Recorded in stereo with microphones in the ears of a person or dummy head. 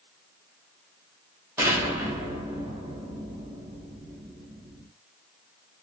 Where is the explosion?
10° right (ahead or behind), 0.7 m.